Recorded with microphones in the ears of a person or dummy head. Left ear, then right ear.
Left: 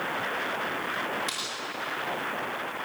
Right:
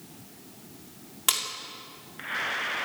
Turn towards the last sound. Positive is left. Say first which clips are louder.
# right 6 dB
turn(degrees=-40)  # may be behind; listen again after turning